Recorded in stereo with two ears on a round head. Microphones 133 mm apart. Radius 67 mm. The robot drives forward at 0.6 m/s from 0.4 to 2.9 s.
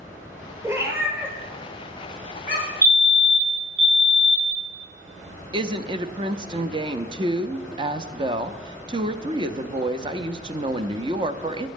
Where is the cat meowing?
20° right (ahead or behind), 1.6 m; by 2.7 s 10° right (ahead or behind), 2.5 m.